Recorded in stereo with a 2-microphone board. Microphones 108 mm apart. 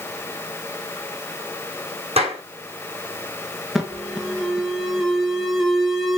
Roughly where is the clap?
Right.